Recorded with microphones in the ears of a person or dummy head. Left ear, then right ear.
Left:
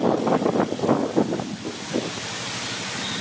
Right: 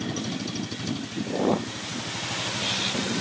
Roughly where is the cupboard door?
No cupboard door in this recording.